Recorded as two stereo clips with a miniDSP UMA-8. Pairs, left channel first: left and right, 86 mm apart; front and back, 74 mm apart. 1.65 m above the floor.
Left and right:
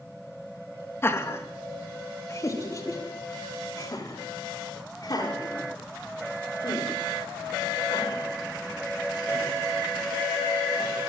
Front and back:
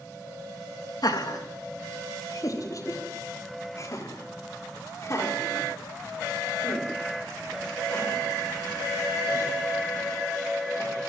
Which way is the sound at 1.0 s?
30° left.